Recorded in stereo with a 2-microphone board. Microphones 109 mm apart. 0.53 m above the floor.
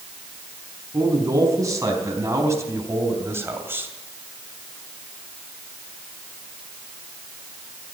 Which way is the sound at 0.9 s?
30° right (ahead or behind).